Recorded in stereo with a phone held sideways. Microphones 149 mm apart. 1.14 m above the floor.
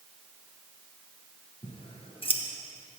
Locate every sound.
1.6 s scissors: 40° left (ahead or behind), 0.8 m